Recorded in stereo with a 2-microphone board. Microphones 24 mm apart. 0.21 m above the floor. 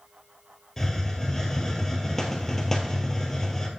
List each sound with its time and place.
0.8 s a hiss: 15° left (ahead or behind), 1.6 m